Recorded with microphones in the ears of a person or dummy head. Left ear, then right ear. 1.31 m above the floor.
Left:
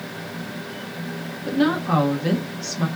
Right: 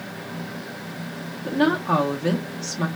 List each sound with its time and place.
1.4 s a woman speaking: 10° right (ahead or behind), 0.7 m